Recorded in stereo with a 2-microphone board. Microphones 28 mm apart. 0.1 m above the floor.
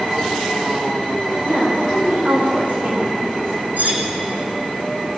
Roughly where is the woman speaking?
Right.